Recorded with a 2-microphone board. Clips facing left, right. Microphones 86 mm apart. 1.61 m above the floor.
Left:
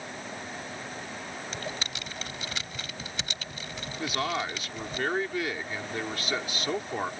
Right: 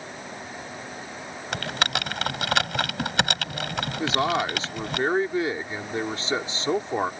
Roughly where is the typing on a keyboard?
Right.